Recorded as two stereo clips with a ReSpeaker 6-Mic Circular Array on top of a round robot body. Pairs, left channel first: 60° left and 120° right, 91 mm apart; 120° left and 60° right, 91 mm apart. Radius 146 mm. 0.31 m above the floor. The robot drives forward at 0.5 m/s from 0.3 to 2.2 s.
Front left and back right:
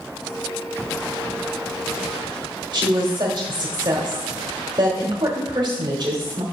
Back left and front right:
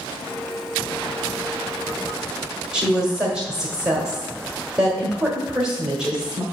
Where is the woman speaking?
140° right, 1.4 m.